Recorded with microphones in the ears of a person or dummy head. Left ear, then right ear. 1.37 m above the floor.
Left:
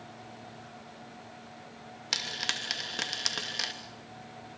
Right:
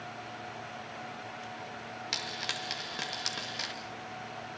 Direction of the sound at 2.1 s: 5° left (ahead or behind).